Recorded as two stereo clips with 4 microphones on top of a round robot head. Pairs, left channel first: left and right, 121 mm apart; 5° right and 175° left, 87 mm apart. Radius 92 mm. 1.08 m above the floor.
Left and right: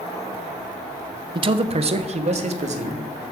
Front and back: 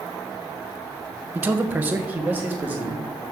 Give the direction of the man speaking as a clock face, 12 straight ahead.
4 o'clock.